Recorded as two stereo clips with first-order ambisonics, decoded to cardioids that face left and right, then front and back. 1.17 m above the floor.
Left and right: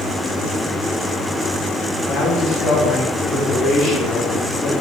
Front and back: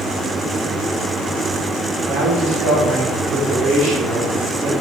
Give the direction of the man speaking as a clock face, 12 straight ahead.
7 o'clock.